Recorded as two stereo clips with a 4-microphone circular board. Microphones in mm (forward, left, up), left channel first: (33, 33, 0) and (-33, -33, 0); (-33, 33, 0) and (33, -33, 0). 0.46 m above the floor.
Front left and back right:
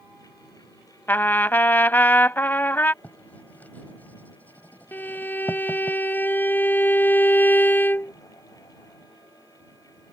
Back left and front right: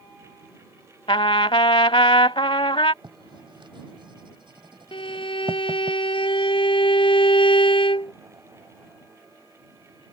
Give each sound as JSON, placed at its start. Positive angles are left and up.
{"t": 1.1, "sound": "a trumpet", "azimuth_deg": 115}
{"t": 3.0, "sound": "writing", "azimuth_deg": -25}
{"t": 4.9, "sound": "a violin", "azimuth_deg": 115}